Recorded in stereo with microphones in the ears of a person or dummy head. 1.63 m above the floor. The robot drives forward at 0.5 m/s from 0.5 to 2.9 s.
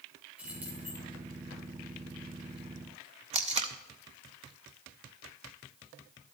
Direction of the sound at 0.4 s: 5° right (ahead or behind).